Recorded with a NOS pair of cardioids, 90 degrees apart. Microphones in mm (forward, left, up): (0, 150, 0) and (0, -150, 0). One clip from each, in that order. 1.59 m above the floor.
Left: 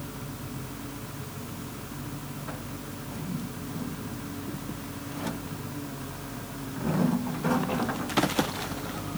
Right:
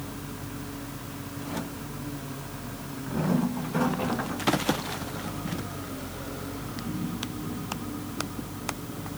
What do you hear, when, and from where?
Only background noise.